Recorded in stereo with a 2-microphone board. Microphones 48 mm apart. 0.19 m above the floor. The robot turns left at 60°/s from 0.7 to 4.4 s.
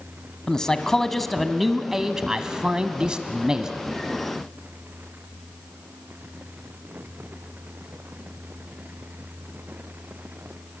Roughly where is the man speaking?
Centre.